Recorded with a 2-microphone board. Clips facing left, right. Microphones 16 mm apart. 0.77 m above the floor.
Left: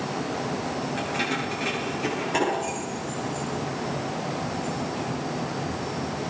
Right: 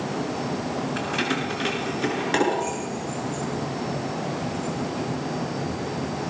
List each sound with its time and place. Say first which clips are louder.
1.0 s keys jangling: right 2 dB; 55° right (ahead or behind), 7.5 m